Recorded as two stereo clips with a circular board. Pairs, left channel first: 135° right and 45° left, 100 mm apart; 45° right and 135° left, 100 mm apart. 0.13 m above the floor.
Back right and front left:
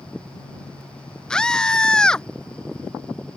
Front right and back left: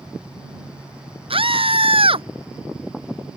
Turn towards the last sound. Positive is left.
turn(degrees=140)